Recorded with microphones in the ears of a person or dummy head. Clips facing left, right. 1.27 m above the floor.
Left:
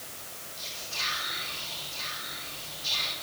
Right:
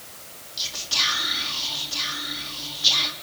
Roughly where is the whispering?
Right.